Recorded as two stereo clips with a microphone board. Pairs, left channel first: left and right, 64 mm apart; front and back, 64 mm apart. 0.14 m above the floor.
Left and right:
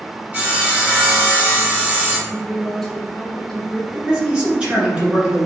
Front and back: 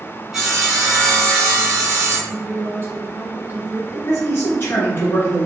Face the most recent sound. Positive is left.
turn(degrees=-25)